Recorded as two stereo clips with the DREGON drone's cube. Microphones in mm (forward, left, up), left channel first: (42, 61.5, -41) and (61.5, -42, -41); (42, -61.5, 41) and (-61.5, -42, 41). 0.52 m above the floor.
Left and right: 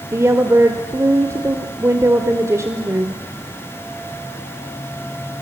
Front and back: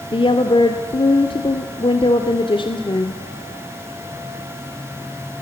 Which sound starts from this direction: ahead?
A woman speaking, at 0.1 s.